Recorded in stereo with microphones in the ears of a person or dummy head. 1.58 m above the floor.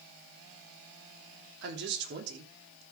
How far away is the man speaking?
About 3 m.